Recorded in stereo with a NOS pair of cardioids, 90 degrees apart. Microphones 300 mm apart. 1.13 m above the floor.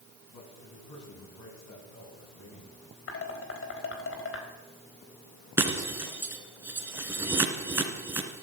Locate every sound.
0.3 s a man speaking: 65° left, 9.5 m
3.1 s dishes clattering: 45° left, 4 m
5.6 s breaking glass: 10° right, 3.5 m